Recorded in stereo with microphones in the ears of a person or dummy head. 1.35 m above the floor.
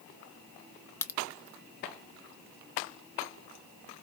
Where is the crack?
15° left (ahead or behind), 0.5 m.